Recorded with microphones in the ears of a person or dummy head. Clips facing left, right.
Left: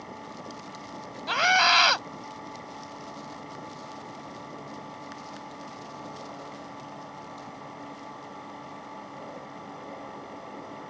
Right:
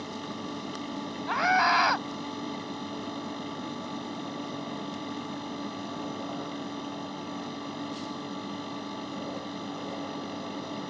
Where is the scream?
50° left (ahead or behind).